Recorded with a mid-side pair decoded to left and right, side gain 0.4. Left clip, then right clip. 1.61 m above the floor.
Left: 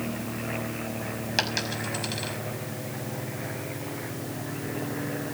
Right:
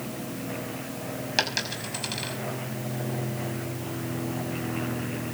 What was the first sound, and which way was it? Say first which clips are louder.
A dropped coin: right 1 dB; 10° right.